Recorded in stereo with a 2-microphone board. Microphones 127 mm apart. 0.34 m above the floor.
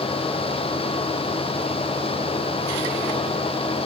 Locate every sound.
Only background noise.